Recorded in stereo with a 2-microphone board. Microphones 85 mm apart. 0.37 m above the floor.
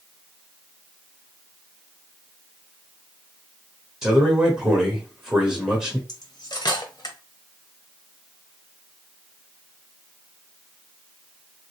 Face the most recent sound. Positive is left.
turn(degrees=55)  # may be behind; listen again after turning